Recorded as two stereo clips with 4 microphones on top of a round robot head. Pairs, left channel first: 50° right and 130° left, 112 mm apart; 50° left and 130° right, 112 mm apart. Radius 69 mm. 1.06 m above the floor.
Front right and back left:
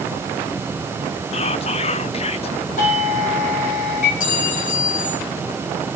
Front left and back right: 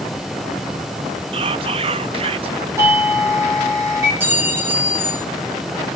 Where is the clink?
60° right, 8.5 m.